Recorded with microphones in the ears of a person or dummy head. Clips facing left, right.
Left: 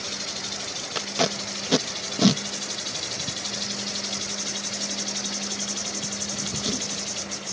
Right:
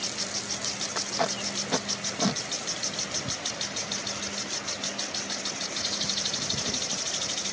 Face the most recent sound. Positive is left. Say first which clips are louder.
# left 4 dB
turn(degrees=50)  # may be behind; listen again after turning